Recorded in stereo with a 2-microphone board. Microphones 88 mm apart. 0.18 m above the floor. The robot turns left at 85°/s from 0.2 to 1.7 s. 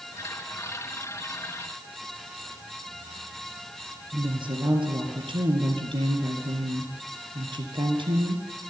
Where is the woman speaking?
70° right (ahead or behind), 3.5 m.